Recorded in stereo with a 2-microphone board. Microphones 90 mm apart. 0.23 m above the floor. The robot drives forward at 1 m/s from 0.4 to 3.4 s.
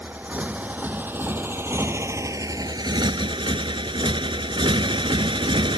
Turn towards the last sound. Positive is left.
turn(degrees=-75)  # may be behind; listen again after turning